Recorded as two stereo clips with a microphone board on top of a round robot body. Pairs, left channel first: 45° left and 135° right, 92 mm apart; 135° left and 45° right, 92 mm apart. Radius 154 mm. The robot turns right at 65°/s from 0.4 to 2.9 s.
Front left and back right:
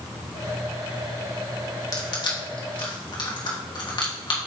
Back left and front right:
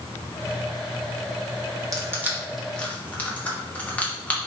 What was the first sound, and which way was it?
Crushing, straight ahead.